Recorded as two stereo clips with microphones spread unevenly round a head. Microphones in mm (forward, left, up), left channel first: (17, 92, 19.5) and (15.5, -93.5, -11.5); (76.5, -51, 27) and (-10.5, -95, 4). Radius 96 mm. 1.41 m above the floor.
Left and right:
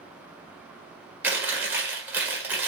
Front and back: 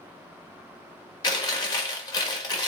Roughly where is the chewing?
Ahead.